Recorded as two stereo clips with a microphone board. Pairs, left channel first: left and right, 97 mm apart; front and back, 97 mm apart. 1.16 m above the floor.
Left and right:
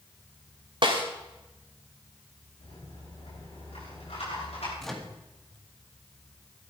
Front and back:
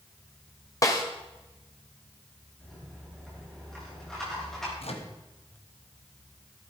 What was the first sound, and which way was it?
A snare drum, 55° right.